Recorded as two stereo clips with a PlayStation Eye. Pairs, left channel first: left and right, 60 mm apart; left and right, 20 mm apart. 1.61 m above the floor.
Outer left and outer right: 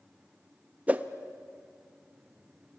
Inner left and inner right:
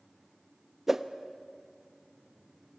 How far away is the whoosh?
About 1.0 m.